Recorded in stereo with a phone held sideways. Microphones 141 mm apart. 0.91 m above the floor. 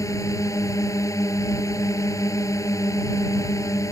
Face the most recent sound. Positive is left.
turn(degrees=25)  # may be behind; listen again after turning